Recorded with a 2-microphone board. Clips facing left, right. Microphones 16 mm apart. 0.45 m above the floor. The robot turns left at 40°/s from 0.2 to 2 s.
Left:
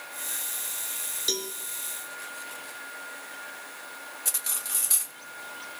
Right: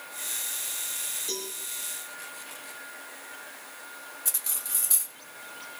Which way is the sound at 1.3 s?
60° left (ahead or behind).